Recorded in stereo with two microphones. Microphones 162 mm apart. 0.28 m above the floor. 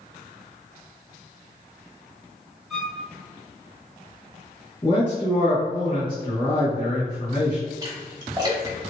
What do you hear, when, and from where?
2.7 s a violin: centre (ahead or behind), 0.9 m
4.8 s a man speaking: 30° left (ahead or behind), 1.7 m
7.8 s a splash: 25° right (ahead or behind), 1.1 m